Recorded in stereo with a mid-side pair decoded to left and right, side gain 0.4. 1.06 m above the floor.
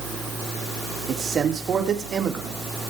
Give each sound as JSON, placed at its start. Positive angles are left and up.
{"t": 1.1, "sound": "a man speaking", "azimuth_deg": -55, "distance_m": 3.5}